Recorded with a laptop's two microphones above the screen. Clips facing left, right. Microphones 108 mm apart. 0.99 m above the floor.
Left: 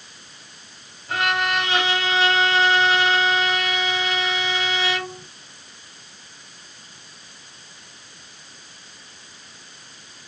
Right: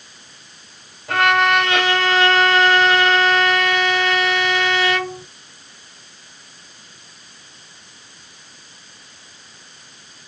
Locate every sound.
1.1 s a violin: 75° right (ahead or behind), 3.5 m